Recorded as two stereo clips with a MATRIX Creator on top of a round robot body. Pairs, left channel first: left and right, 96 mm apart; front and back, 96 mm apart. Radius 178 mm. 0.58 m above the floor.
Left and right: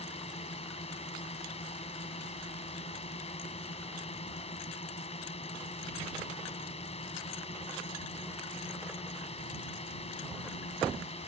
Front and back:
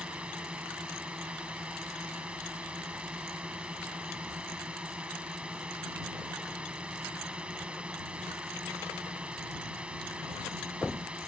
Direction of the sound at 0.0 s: 100° left.